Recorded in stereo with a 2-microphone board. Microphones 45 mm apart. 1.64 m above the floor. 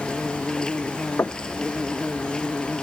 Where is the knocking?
65° left (ahead or behind).